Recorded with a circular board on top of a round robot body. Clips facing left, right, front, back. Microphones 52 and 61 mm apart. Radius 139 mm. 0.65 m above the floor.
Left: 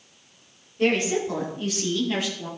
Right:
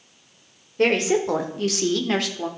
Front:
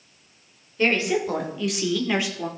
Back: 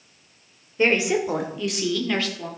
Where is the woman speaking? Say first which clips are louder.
Right 3 dB, back 2 dB; 110° right, 3 m; by 2.5 s 70° right, 2 m.